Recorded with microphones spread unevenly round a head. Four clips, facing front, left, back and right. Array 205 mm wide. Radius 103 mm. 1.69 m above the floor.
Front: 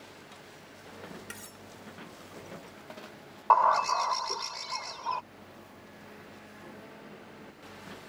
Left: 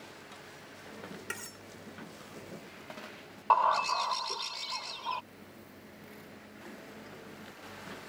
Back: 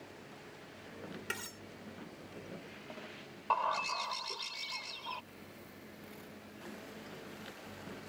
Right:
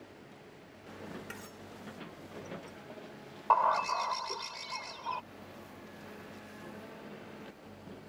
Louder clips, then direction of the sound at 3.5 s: Left 1 dB, front 11 dB; 5° left.